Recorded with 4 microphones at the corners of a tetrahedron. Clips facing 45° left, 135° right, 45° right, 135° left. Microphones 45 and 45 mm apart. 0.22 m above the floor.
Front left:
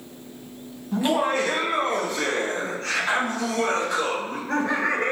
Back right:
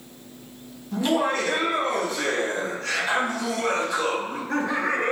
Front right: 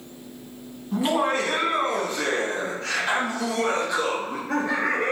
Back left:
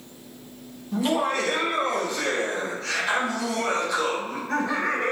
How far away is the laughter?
About 1.2 m.